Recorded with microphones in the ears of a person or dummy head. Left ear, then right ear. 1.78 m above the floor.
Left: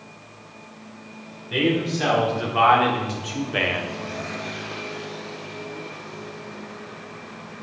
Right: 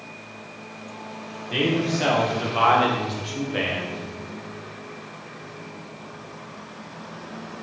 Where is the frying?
No frying in this recording.